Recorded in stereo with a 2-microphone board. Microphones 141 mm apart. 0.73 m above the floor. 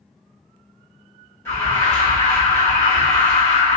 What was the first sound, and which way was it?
An alarm, 20° left (ahead or behind).